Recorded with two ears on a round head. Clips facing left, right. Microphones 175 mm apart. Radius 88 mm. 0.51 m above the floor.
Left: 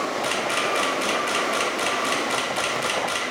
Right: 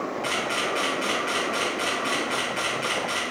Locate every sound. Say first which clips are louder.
0.2 s a camera shutter: left 3 dB; 50° left (ahead or behind), 1.2 m